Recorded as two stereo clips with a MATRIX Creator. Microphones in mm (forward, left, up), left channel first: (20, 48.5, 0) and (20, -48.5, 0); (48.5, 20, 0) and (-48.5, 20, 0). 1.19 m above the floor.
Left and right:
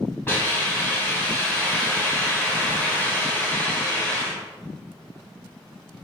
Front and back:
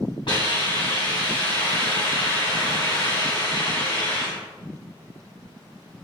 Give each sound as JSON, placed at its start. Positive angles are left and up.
{"t": 0.3, "sound": "a hiss", "azimuth_deg": 25, "distance_m": 3.0}